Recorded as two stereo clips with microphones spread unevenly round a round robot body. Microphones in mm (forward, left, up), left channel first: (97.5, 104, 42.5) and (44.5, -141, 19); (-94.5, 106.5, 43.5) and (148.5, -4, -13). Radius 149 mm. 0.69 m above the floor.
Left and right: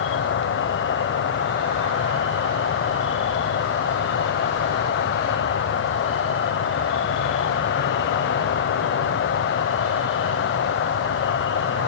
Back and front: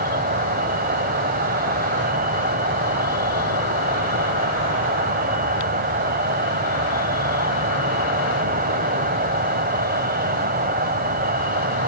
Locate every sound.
0.0 s an insect: 35° left, 1.3 m